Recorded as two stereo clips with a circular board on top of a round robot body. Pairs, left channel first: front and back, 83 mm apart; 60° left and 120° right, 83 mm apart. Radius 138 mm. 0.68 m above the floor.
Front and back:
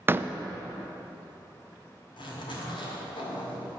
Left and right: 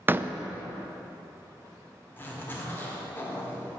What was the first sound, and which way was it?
A door slam, 150° right.